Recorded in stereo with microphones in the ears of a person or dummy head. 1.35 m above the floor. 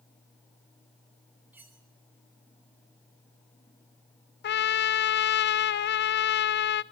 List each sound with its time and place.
1.5 s cutlery clinking: 10° right (ahead or behind), 3 m
4.4 s a trumpet: 50° left (ahead or behind), 0.6 m